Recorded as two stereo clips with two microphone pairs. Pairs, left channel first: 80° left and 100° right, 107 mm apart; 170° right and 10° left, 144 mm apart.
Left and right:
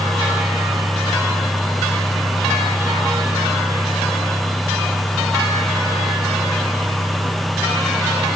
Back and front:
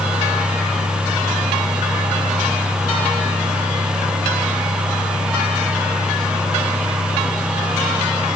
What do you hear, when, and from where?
Only background noise.